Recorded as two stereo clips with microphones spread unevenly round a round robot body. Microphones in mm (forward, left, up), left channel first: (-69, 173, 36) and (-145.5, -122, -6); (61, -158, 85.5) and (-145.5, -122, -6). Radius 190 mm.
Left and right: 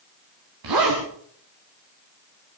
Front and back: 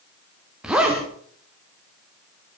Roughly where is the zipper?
Right.